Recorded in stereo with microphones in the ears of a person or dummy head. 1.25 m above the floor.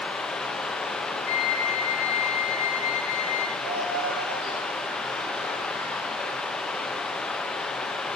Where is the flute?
55° left (ahead or behind), 1.9 m.